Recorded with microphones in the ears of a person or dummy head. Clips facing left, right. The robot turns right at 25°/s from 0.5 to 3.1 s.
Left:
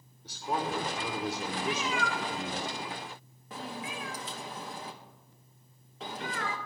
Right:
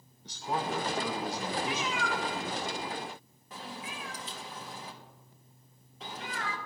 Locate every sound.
0.2 s a man speaking: 15° left, 0.9 m; by 2.6 s 70° left, 0.9 m
1.6 s a cat meowing: 40° left (ahead or behind), 0.5 m; by 6.6 s 45° left (ahead or behind), 0.5 m